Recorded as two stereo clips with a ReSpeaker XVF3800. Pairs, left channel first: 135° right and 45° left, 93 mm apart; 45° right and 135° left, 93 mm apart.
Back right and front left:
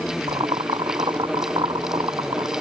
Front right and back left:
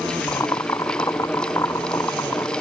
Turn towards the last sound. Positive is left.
turn(degrees=10)